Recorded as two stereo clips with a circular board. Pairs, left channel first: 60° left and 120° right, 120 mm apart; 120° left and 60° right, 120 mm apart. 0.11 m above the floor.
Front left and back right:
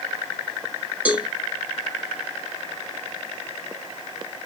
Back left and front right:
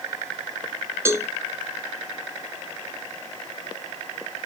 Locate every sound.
1.1 s a cowbell: 65° right, 0.7 m